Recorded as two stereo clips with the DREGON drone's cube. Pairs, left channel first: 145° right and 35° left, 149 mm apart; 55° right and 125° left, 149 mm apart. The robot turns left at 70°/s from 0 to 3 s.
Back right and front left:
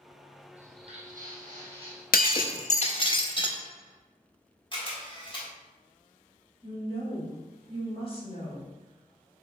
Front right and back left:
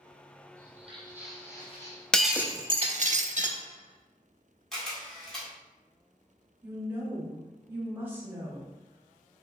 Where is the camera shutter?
140° right, 1.4 m.